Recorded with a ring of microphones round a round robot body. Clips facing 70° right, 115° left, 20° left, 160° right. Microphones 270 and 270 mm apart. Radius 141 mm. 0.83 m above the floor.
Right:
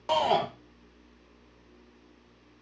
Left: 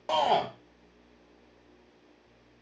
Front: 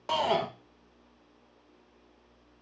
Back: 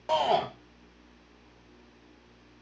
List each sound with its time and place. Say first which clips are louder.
0.1 s a shout: right 1 dB, back 2 dB; 30° right, 0.6 m